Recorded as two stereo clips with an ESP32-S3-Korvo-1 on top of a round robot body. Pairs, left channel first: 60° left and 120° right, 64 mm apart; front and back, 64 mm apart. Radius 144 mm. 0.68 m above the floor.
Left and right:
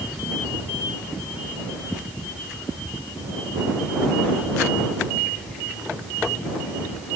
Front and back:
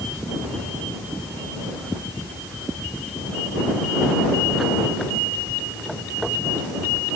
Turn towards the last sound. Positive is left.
No sound to turn to.